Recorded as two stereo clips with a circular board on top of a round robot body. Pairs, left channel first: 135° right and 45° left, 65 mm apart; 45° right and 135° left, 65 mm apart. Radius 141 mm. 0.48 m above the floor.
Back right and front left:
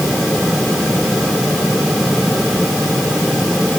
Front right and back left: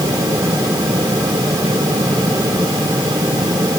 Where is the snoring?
No snoring in this recording.